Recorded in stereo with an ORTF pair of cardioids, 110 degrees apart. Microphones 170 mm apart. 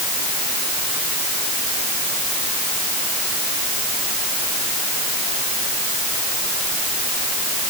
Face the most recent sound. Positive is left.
No sound to turn to.